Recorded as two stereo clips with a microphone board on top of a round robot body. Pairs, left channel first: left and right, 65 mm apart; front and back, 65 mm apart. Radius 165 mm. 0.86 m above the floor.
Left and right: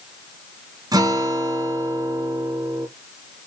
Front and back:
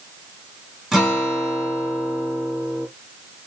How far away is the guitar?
About 1.2 m.